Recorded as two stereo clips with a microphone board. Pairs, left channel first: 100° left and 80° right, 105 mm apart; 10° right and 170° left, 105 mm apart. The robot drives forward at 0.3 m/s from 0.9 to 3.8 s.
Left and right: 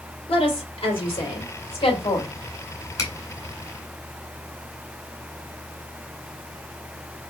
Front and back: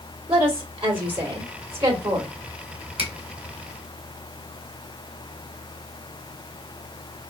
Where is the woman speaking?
130° left, 2.5 m; by 2.3 s 140° left, 3 m.